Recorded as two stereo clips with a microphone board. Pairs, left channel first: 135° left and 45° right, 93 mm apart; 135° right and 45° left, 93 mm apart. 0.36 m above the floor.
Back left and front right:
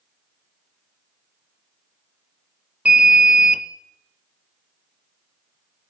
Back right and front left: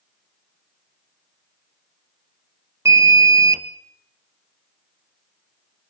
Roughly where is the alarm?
Ahead.